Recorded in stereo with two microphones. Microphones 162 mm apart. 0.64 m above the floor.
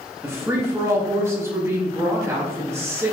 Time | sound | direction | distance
0.2 | a woman speaking | 15° right (ahead or behind) | 0.8 m